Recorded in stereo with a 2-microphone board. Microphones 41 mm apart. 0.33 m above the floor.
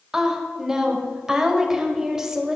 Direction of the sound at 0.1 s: 10° right (ahead or behind).